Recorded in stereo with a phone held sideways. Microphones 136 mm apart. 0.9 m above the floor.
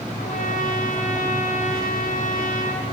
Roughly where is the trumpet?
Left.